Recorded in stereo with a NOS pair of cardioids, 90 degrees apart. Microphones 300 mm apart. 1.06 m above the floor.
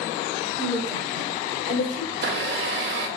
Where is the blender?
40° right, 1.7 m.